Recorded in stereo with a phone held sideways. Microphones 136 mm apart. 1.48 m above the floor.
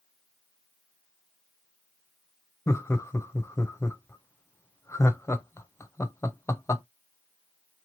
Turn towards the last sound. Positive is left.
turn(degrees=20)  # may be behind; listen again after turning